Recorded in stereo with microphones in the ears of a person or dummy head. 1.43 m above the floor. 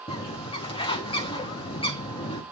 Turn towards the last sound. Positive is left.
turn(degrees=25)  # may be behind; listen again after turning